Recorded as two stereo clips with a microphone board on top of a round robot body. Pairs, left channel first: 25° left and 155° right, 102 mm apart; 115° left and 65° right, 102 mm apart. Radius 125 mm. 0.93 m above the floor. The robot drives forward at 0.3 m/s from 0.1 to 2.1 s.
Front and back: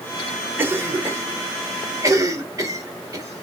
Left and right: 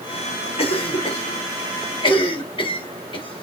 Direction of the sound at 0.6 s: 135° left.